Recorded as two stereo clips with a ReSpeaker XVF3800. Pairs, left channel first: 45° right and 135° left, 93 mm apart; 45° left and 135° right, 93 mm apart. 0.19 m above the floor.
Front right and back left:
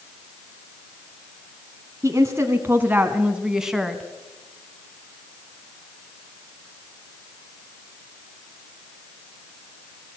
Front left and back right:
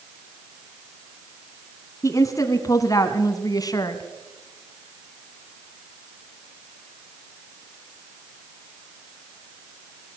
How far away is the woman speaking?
About 1.7 m.